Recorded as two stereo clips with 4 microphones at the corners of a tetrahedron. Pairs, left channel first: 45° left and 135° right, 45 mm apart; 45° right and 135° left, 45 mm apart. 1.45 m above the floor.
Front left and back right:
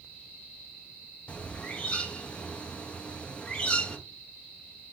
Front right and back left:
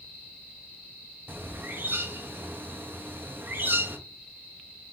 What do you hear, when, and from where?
1.3 s a bird: 110° left, 0.7 m